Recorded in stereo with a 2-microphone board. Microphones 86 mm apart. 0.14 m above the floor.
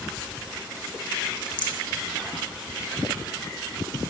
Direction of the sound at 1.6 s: 60° left (ahead or behind).